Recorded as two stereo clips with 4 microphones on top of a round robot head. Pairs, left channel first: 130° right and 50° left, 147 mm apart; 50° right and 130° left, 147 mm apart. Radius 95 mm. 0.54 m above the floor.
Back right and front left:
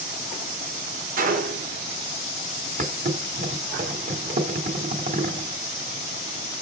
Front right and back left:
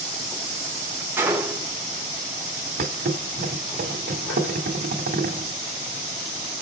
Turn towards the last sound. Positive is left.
turn(degrees=90)